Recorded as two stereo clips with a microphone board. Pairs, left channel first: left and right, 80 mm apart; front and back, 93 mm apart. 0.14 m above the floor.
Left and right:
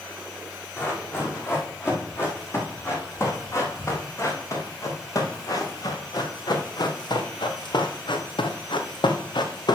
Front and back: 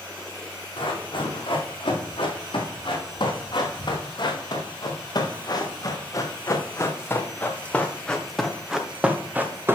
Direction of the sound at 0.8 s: 30° left.